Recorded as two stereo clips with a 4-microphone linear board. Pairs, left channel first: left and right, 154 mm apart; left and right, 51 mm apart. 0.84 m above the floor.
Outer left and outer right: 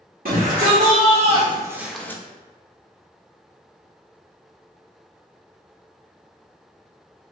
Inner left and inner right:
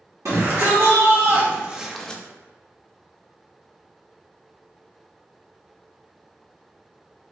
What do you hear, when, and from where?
0.2 s a shout: 70° right (ahead or behind), 1.1 m; by 2.2 s 20° left (ahead or behind), 0.5 m